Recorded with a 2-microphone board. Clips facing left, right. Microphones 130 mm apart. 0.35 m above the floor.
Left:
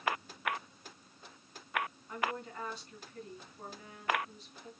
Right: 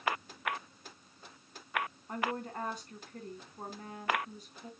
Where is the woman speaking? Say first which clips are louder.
Right 2 dB; 45° right (ahead or behind), 3.5 m.